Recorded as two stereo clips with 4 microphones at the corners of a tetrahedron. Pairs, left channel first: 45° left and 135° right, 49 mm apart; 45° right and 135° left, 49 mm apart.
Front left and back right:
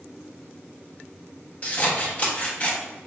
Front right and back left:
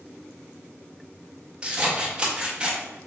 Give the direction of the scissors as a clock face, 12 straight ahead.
9 o'clock.